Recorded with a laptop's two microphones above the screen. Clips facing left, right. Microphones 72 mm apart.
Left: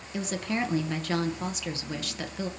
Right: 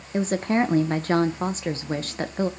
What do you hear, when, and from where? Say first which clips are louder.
0.1 s a woman speaking: right 8 dB; 35° right (ahead or behind), 0.6 m